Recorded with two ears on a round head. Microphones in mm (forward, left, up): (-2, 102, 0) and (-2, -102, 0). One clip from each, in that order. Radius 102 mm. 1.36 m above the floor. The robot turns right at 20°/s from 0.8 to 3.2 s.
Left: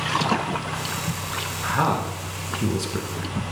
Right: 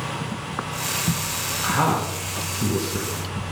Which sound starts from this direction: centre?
A man speaking, at 1.6 s.